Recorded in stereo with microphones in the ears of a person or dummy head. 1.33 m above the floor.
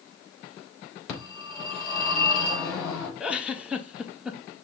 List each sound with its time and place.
1.1 s a phone ringing: 25° left (ahead or behind), 3 m
3.2 s a giggle: 5° left (ahead or behind), 0.5 m